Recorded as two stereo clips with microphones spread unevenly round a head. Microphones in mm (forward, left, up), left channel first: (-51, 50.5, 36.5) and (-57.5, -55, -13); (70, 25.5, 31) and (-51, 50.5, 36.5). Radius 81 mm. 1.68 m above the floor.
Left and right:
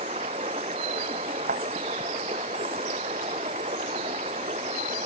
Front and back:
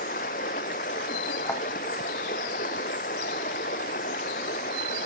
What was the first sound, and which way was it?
Running water, 45° right.